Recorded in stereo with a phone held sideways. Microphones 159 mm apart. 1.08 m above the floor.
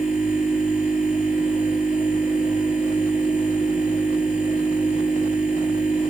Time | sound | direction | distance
0.0 | a machine running | 55° left (ahead or behind) | 2 m